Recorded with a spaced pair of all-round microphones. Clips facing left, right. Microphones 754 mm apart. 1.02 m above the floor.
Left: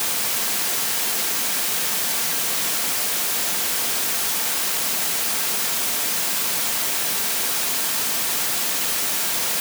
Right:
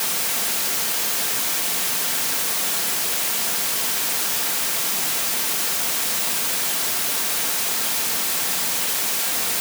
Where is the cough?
No cough in this recording.